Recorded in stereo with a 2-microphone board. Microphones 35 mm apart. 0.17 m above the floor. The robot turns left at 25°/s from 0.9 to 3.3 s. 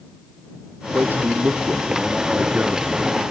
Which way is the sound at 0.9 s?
80° right.